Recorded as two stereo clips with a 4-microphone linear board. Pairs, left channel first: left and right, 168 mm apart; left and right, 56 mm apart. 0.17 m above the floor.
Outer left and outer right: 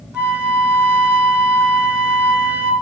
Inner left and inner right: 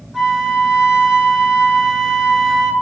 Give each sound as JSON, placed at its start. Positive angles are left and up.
{"t": 0.1, "sound": "a flute", "side_deg": -5, "distance_m": 1.5}